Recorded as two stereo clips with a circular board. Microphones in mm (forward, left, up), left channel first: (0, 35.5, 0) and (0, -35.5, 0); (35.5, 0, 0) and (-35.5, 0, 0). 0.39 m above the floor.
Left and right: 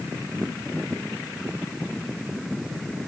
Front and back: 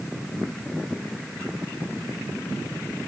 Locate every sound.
Only background noise.